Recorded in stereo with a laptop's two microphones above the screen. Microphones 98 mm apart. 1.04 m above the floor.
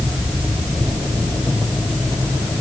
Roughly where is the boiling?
No boiling in this recording.